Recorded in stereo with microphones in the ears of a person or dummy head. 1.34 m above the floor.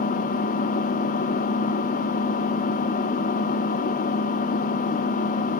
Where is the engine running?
45° left (ahead or behind), 1.4 m.